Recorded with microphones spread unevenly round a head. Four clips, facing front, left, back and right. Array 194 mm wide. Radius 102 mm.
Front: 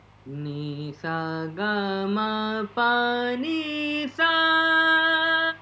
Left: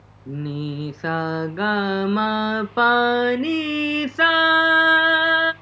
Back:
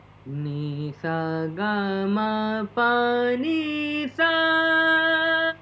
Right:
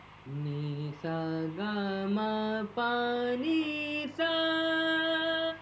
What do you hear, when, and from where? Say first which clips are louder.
0.3 s singing: left 9 dB, back 2 dB; 80° left, 0.7 m